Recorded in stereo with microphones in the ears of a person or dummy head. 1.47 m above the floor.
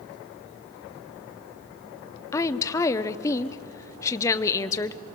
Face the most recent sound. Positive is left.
turn(degrees=15)  # may be behind; listen again after turning